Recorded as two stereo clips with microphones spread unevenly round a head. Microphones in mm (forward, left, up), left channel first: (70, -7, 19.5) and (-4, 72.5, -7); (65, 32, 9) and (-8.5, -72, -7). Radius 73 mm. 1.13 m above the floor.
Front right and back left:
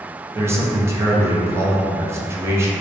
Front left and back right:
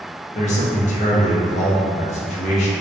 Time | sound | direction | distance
0.3 | a man speaking | 85° left | 0.5 m